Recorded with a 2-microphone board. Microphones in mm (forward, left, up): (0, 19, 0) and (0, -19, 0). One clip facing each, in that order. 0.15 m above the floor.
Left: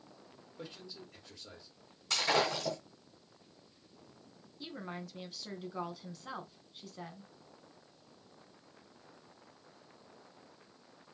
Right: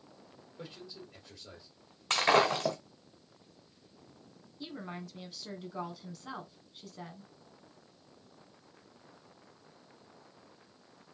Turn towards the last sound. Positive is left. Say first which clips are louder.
# right 1 dB
turn(degrees=0)  # may be behind; listen again after turning